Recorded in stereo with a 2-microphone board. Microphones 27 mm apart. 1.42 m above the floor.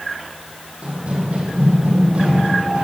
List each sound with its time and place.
0.8 s running footsteps: 45° right (ahead or behind), 2 m; by 2.8 s 50° right (ahead or behind), 3 m